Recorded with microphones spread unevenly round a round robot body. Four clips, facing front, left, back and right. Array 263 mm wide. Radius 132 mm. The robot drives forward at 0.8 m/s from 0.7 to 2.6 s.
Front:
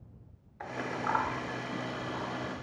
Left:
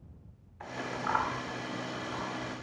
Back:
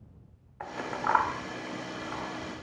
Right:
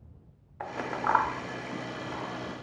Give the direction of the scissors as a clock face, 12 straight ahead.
3 o'clock.